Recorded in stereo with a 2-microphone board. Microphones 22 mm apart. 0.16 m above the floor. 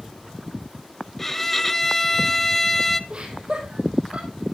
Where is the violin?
10° left (ahead or behind), 0.6 m.